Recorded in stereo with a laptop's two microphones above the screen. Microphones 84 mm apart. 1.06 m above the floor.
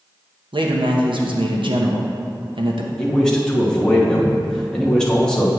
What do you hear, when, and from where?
0.5 s a man speaking: 75° right (ahead or behind), 0.8 m
3.0 s a man speaking: 5° left (ahead or behind), 1.0 m